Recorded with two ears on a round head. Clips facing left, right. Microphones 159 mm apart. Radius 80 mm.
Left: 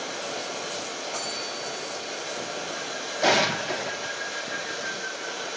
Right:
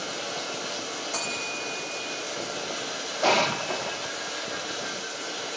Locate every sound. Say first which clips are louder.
0.0 s running water: left 1 dB; 30° right (ahead or behind), 8.5 m
1.1 s a bell: even; 55° right (ahead or behind), 5.5 m
3.2 s an explosion: left 1 dB; 10° left (ahead or behind), 0.9 m